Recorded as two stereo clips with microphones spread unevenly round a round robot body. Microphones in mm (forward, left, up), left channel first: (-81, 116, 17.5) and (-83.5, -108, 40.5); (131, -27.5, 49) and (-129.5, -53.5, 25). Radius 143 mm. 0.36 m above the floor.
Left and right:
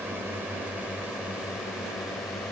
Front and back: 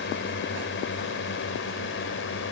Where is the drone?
5° right; by 2.5 s 10° left.